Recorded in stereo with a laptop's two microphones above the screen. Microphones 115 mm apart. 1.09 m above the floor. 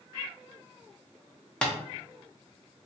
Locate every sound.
1.6 s tapping: 5° left (ahead or behind), 0.9 m